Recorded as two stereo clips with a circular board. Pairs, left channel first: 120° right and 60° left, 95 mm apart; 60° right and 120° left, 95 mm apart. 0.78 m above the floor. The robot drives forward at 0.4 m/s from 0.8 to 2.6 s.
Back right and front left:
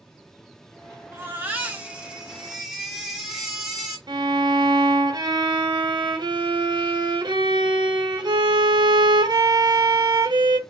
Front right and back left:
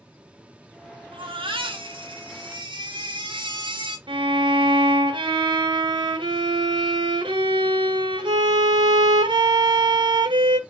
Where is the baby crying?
120° left, 1.0 m; by 4.0 s 145° left, 1.4 m.